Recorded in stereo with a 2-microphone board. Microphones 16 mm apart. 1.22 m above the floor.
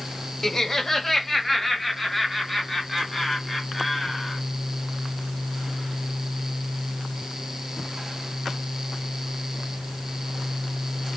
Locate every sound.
0.4 s laughter: 25° left (ahead or behind), 0.8 m; by 4.4 s 5° right (ahead or behind), 3.5 m